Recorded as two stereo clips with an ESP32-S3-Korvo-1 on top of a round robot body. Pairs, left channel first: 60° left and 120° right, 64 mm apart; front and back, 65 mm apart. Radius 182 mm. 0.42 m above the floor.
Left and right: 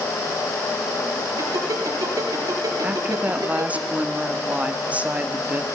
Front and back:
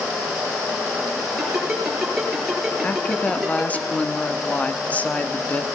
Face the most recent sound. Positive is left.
turn(degrees=-60)